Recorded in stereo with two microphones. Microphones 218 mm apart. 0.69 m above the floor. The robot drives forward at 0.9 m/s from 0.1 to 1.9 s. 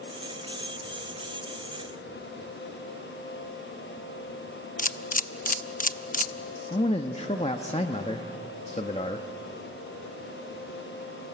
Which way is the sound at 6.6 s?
30° left (ahead or behind).